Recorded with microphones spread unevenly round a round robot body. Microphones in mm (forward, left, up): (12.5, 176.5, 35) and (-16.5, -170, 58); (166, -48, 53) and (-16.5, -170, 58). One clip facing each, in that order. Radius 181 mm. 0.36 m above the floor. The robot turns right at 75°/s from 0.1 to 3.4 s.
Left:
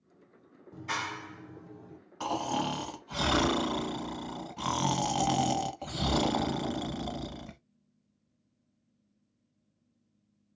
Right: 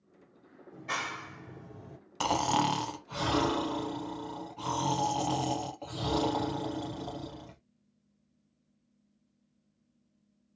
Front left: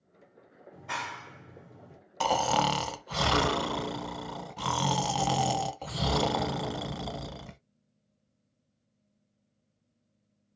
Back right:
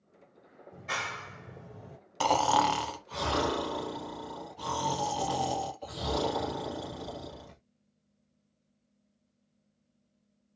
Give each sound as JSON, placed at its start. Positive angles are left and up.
{"t": 0.7, "sound": "a clap", "azimuth_deg": 130, "distance_m": 1.5}
{"t": 2.2, "sound": "snoring", "azimuth_deg": -60, "distance_m": 0.8}